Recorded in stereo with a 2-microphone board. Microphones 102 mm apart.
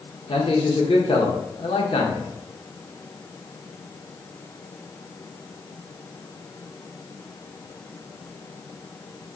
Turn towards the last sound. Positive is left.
turn(degrees=60)  # may be behind; listen again after turning